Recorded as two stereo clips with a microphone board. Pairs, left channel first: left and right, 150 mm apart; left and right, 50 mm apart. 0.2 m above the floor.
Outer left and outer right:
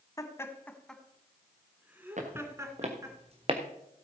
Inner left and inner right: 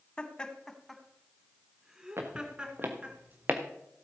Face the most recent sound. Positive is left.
turn(degrees=-35)  # may be behind; listen again after turning